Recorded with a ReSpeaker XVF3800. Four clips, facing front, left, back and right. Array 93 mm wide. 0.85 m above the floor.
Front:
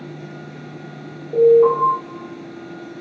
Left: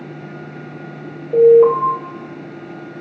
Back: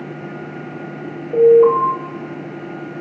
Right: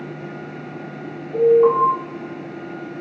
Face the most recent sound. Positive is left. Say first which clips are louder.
# left 5 dB, back 2 dB
turn(degrees=90)